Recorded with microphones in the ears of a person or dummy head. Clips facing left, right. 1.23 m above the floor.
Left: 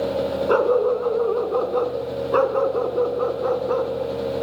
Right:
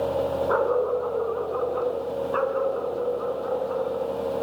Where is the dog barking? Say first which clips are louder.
Left 7 dB; 55° left (ahead or behind), 3.5 m; by 4.0 s 60° left (ahead or behind), 3.5 m.